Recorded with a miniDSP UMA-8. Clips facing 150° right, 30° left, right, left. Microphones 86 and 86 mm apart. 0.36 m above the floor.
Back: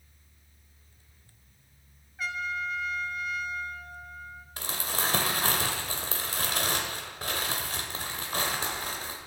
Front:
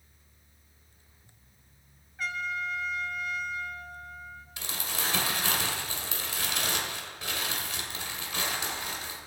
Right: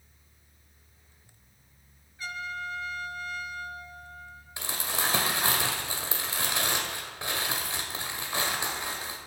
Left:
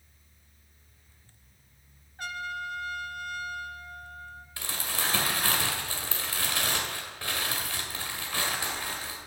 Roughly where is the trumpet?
Behind left.